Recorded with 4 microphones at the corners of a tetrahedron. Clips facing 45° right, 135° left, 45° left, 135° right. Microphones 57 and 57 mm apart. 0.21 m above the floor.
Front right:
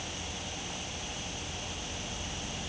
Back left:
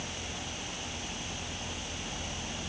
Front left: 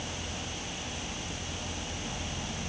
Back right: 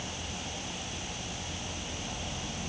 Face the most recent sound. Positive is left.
No sound to turn to.